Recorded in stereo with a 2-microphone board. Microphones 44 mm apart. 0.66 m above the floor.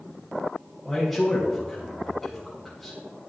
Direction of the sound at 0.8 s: Centre (ahead or behind).